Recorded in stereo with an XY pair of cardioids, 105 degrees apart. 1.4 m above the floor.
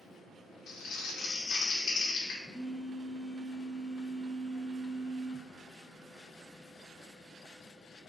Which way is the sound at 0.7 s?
65° left.